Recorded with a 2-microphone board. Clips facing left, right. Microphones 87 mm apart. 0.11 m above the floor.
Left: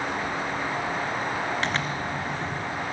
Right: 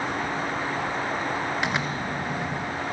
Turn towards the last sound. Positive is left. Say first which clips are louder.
# right 1 dB
turn(degrees=-10)  # may be behind; listen again after turning